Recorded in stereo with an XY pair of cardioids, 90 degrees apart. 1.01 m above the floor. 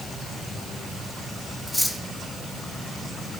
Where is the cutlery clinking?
5° right, 1.3 m.